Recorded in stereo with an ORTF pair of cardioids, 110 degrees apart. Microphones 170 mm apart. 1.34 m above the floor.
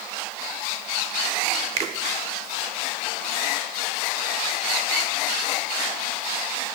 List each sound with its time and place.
1.8 s a finger snap: 45° right, 0.8 m